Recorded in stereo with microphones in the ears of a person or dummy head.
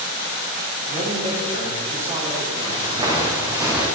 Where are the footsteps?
30° right (ahead or behind), 3.5 m; by 3.9 s 10° right (ahead or behind), 3.5 m.